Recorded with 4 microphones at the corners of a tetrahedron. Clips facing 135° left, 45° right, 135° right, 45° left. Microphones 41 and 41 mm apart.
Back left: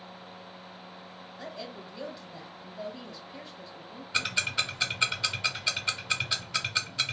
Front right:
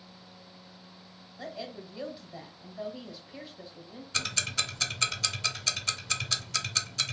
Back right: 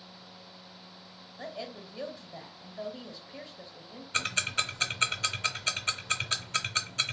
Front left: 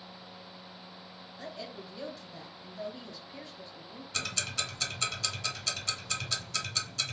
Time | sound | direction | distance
1.4 | a woman speaking | 110° right | 1.0 m
4.1 | ticking | 160° right | 0.5 m